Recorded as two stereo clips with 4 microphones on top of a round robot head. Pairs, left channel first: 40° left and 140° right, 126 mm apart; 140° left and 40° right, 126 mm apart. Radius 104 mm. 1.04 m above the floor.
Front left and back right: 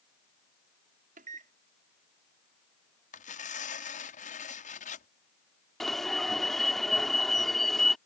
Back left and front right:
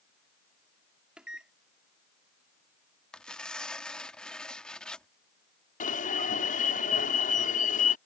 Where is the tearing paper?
55° left.